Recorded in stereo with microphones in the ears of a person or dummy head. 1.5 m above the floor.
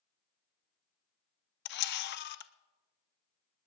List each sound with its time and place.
1.6 s a camera shutter: 55° left (ahead or behind), 0.5 m